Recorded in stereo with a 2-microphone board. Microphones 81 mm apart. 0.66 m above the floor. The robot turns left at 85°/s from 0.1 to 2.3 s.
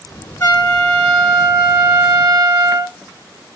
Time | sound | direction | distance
0.4 | a trumpet | 30° left | 1.0 m